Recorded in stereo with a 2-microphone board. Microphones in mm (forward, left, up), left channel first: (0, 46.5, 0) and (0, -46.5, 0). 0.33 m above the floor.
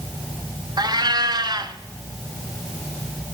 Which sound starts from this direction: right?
A cat meowing, at 0.8 s.